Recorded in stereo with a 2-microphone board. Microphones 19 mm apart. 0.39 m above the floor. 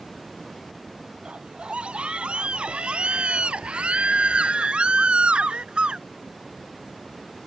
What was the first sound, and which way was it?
A scream, 80° right.